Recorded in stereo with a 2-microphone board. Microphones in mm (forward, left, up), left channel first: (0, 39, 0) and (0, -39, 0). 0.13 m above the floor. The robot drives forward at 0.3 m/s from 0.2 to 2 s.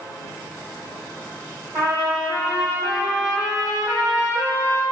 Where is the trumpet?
35° right (ahead or behind), 1.5 m.